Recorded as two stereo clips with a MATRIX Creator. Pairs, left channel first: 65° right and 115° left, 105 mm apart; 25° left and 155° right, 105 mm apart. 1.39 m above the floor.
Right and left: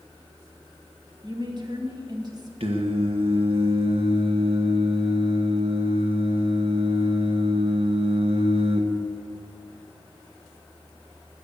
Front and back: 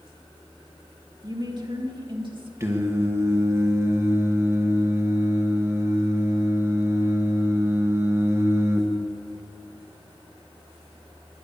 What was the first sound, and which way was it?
A woman speaking, 155° left.